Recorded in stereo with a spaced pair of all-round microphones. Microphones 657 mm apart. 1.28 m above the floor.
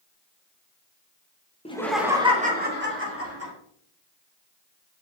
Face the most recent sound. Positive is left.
turn(degrees=-20)  # may be behind; listen again after turning